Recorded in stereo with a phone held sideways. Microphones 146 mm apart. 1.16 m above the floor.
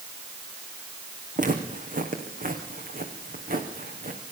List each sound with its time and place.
1.4 s footsteps: 65° right (ahead or behind), 4.5 m; by 4.2 s 75° right (ahead or behind), 5 m